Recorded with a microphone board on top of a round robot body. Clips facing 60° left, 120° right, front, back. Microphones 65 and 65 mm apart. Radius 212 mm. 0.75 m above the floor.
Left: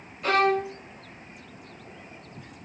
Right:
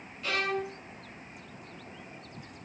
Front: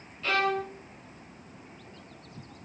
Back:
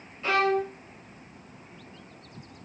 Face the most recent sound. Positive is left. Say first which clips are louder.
# left 9 dB, back 3 dB
turn(degrees=110)